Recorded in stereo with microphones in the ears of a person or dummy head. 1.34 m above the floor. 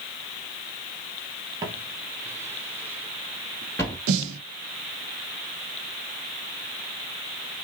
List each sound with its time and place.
1.6 s footsteps: 20° right (ahead or behind), 1.8 m; by 4.0 s 10° left (ahead or behind), 1.3 m
4.1 s a snare drum: 80° right, 1.1 m